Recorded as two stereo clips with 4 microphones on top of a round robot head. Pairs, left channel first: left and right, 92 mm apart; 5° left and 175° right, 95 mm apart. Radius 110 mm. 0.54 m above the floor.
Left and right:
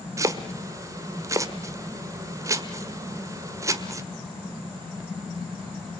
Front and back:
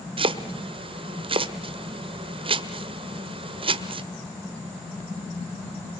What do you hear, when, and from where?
0.2 s chopping: 150° right, 1.6 m